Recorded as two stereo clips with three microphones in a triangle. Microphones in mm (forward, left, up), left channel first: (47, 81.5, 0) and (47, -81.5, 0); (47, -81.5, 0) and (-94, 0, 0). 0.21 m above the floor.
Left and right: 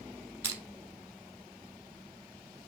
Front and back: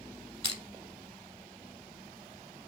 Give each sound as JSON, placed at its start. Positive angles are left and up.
{"t": 0.4, "sound": "crushing", "azimuth_deg": -160, "distance_m": 0.9}